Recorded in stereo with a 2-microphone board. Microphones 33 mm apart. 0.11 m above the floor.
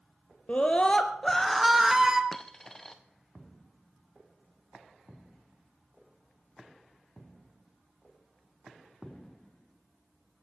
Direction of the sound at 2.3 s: 10° left (ahead or behind).